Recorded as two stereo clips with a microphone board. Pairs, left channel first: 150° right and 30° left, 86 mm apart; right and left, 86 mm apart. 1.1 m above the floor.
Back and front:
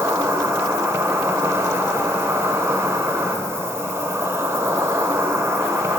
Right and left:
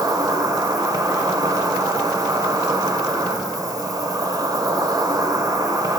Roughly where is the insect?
Left.